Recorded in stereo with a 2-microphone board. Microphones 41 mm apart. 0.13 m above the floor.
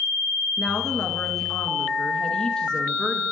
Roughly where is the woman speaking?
Centre.